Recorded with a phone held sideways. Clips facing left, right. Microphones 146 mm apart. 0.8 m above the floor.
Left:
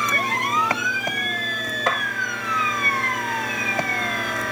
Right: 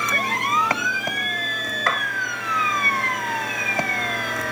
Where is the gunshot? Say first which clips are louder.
Left 1 dB; 20° left (ahead or behind), 0.5 m.